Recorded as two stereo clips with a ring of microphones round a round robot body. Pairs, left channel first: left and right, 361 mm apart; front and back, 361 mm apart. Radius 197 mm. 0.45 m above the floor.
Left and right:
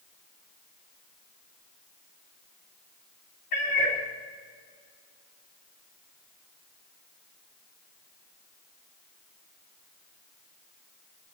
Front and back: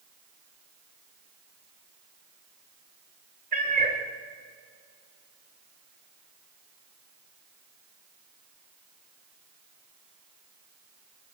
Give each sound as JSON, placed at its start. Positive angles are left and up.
{"t": 3.5, "sound": "a cat meowing", "azimuth_deg": 110, "distance_m": 5.5}